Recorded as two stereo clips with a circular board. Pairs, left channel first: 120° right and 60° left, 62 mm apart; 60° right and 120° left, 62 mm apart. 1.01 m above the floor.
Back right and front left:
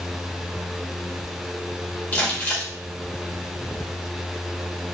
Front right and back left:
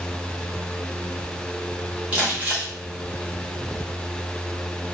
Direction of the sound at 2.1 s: 175° right.